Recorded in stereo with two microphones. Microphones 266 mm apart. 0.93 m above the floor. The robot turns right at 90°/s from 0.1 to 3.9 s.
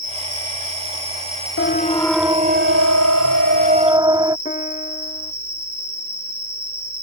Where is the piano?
30° left (ahead or behind).